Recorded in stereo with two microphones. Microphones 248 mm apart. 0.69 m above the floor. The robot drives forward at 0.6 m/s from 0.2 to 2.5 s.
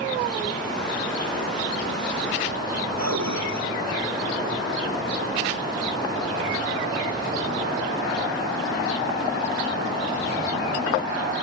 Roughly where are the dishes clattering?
Right.